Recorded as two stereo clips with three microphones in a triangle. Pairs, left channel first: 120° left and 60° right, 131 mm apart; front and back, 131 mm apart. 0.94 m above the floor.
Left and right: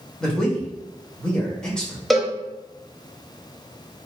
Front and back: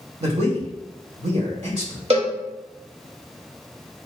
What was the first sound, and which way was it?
A man speaking, 160° right.